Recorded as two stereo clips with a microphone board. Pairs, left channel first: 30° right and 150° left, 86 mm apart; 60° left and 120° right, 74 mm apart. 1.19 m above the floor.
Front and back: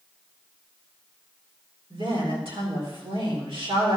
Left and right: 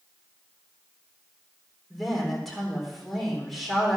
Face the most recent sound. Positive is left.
turn(degrees=150)